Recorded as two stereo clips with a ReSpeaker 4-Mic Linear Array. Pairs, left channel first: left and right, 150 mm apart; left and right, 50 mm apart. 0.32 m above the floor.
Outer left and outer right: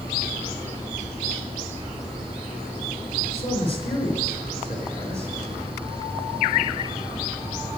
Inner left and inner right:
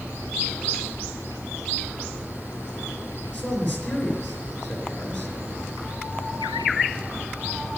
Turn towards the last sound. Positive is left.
turn(degrees=40)  # may be behind; listen again after turning